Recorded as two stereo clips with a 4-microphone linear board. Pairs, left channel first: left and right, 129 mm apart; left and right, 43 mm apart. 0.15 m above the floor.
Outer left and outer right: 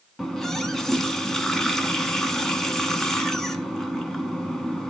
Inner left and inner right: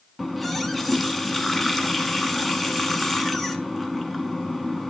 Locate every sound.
0.2 s a running tap: 5° left (ahead or behind), 0.8 m